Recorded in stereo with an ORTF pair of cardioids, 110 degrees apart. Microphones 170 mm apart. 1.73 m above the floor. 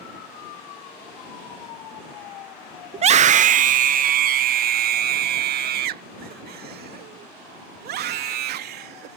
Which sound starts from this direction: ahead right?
A scream, at 2.9 s.